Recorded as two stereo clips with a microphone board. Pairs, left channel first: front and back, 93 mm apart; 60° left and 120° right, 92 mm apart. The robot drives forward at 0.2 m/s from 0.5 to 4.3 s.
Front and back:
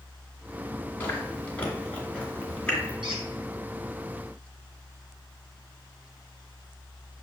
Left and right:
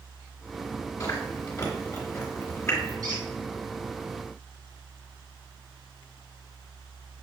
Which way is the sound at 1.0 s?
50° left.